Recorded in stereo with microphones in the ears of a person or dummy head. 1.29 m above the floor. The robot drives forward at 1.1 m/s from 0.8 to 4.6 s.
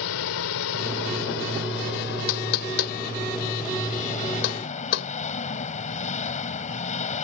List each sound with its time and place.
0.0 s an engine running: 75° left (ahead or behind); by 7.2 s 35° left (ahead or behind)
2.3 s knocking: 85° left; by 5.1 s 55° left (ahead or behind)